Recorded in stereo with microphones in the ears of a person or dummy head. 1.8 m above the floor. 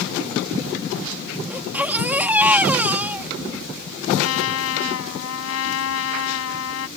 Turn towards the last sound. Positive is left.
turn(degrees=80)